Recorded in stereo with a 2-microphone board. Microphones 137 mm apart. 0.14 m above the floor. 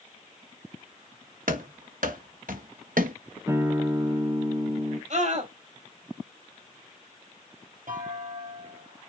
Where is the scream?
60° right (ahead or behind), 3.5 m.